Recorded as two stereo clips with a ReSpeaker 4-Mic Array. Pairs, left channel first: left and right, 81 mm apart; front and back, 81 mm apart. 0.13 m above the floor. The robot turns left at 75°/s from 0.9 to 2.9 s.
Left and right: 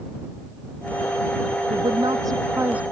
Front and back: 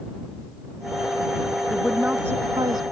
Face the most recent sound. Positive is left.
turn(degrees=-170)